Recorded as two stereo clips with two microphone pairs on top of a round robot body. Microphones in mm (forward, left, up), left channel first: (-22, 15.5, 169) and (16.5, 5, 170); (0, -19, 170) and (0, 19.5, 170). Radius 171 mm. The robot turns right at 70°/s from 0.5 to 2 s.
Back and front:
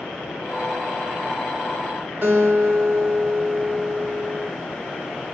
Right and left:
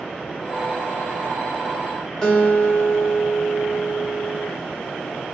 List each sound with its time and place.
2.2 s a guitar: 20° right, 1.7 m